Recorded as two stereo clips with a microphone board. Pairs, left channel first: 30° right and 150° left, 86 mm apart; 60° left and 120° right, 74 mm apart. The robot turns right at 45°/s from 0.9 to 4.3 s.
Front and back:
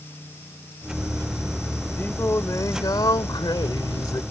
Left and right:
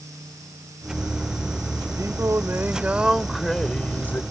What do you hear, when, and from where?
2.0 s singing: 95° right; by 4.2 s 5° left